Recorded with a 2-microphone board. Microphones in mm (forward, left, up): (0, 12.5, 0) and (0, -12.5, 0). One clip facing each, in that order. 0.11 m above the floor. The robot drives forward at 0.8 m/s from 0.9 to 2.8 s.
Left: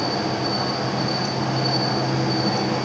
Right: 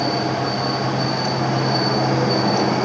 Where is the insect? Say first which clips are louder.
Right 2 dB; 45° right (ahead or behind), 2 m; by 2.9 s 80° right, 1.6 m.